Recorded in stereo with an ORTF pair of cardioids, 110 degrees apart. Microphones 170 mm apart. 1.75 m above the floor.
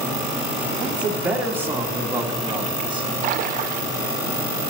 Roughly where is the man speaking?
Ahead.